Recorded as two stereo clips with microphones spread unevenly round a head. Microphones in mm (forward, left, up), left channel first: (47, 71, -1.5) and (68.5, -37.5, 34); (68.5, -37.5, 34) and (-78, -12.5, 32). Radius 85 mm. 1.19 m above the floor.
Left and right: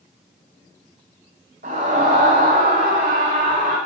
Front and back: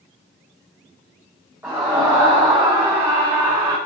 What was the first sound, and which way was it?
A scream, 115° right.